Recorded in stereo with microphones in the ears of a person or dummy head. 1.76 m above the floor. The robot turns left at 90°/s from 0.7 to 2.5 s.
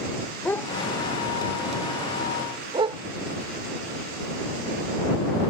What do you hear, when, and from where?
0.5 s a dog barking: 10° left (ahead or behind); by 3.0 s 30° right (ahead or behind)